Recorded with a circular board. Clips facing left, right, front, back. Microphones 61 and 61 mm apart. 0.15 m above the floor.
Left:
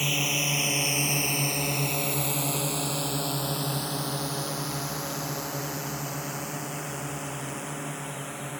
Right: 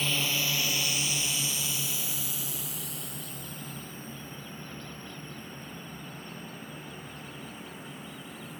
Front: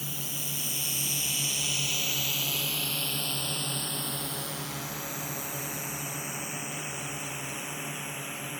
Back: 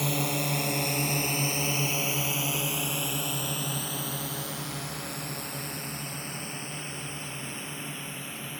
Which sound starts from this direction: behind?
A drone, at 0.0 s.